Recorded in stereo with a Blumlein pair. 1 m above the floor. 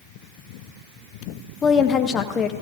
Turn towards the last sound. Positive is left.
turn(degrees=25)